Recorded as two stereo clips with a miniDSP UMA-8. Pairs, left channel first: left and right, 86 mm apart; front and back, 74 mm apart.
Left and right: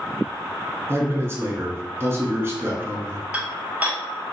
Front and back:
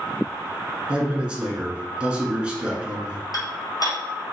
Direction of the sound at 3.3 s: 20° right.